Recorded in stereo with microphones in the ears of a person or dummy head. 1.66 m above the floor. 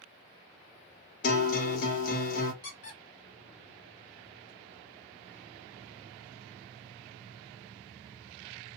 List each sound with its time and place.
1.2 s a guitar: 50° left (ahead or behind), 0.8 m
2.6 s a squeak: 50° left (ahead or behind), 1.5 m